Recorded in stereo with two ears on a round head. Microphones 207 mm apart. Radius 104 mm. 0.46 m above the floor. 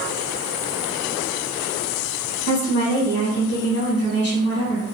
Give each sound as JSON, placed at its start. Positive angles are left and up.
{"t": 2.5, "sound": "a woman speaking", "side_deg": 50, "distance_m": 1.5}